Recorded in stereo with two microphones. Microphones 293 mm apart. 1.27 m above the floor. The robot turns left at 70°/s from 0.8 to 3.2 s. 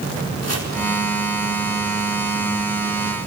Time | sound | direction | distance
0.4 | chopping | 60° right (ahead or behind) | 4 m